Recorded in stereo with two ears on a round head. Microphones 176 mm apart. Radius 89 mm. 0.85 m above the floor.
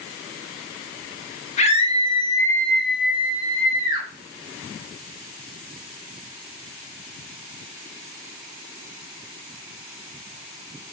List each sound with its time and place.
1.6 s a scream: 35° left (ahead or behind), 1.0 m; by 4.1 s 20° right (ahead or behind), 1.5 m